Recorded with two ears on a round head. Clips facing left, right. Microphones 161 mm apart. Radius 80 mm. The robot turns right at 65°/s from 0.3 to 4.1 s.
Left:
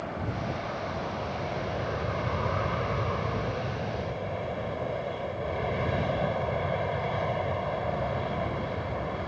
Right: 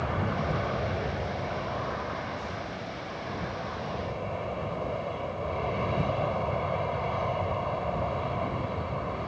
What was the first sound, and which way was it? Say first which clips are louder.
An aircraft: right 3 dB; 75° right.